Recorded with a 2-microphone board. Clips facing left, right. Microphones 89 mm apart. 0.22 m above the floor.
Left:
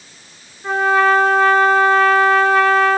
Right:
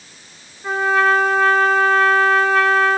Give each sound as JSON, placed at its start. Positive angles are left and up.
{"t": 0.6, "sound": "a trumpet", "side_deg": 5, "distance_m": 3.5}